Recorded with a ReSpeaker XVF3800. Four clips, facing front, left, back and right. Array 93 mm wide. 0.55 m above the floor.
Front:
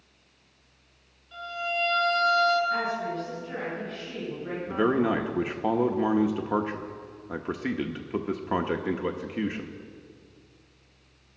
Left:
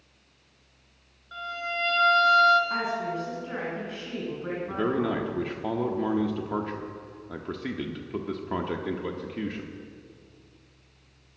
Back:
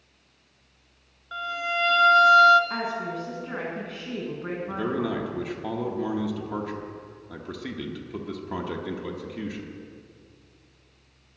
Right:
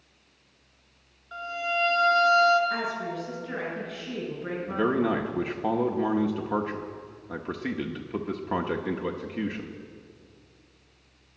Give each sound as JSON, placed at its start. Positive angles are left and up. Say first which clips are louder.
{"t": 1.3, "sound": "a violin", "louder": "right 3 dB, back 3 dB", "azimuth_deg": -175, "distance_m": 1.8}
{"t": 2.7, "sound": "a woman speaking", "louder": "left 1 dB, front 1 dB", "azimuth_deg": 155, "distance_m": 5.5}
{"t": 4.7, "sound": "a man speaking", "louder": "right 2 dB, front 5 dB", "azimuth_deg": -15, "distance_m": 0.7}